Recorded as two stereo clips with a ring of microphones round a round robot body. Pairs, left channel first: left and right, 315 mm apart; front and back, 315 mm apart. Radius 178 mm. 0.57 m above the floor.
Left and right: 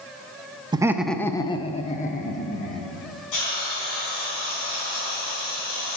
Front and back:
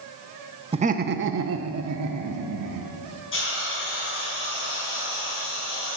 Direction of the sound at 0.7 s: 140° right.